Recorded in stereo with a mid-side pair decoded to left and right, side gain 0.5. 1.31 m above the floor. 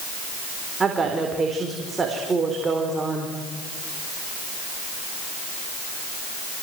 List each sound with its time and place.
0.8 s a woman speaking: 30° right, 4 m